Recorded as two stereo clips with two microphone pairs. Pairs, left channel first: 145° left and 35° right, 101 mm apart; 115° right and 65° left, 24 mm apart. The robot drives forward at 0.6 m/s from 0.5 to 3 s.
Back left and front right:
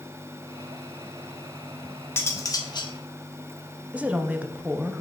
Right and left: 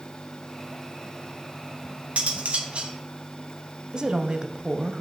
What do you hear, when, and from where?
2.2 s cutlery clinking: 75° left, 1.0 m; by 2.9 s 105° left, 1.0 m
3.9 s a woman speaking: 35° left, 0.6 m